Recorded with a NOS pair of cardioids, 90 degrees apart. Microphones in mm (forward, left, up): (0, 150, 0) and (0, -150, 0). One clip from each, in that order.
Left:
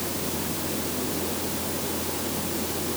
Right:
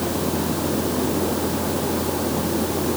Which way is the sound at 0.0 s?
55° right.